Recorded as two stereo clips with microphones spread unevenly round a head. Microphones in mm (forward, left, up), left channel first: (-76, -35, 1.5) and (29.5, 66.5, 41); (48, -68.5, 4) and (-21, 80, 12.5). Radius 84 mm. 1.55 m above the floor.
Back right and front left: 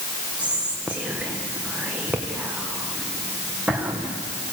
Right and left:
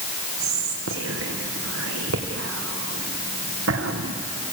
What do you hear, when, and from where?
0.4 s whispering: 125° left, 1.3 m